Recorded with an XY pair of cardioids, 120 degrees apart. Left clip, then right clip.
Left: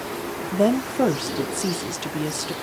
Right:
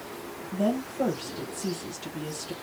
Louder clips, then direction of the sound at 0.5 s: Left 8 dB; 65° left.